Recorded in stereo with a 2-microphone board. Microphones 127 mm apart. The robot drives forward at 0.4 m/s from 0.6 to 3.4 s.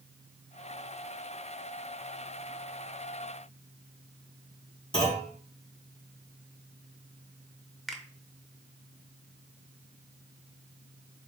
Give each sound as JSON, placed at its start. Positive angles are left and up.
{"t": 4.9, "sound": "a clunk", "side_deg": 45, "distance_m": 3.0}
{"t": 7.9, "sound": "a finger snap", "side_deg": 0, "distance_m": 0.7}